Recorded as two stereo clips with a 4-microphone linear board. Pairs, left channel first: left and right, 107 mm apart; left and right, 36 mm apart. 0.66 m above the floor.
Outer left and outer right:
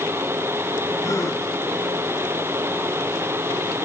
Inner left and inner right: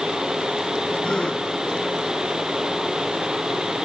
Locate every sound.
1.0 s a gasp: 30° left (ahead or behind), 2 m